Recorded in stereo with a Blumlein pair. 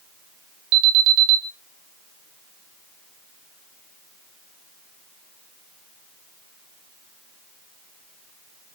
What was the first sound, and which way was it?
An alarm, 40° right.